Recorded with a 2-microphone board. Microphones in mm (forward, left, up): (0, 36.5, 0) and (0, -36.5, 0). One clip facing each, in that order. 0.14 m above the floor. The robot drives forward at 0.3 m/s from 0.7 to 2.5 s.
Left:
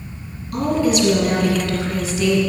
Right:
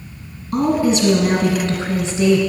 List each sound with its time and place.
0.5 s a woman speaking: 30° right (ahead or behind), 1.4 m